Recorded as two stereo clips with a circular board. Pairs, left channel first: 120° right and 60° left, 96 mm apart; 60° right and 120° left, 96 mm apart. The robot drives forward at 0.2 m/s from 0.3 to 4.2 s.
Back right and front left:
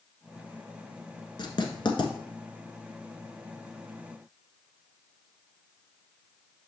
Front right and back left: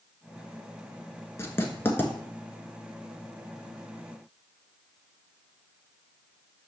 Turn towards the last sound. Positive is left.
turn(degrees=-140)